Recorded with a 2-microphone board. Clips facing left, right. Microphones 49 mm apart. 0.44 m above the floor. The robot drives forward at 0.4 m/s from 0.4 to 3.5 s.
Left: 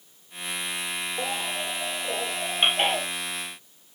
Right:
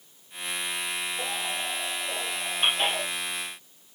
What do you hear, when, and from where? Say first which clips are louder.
1.2 s a baby crying: left 2 dB; 75° left (ahead or behind), 4.5 m; by 3.0 s 65° left (ahead or behind), 5 m